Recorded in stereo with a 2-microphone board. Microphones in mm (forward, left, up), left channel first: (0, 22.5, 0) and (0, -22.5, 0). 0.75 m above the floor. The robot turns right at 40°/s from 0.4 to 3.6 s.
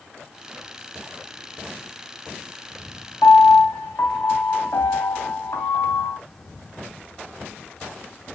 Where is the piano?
90° left, 2.5 m; by 6.2 s 70° left (ahead or behind), 2.5 m.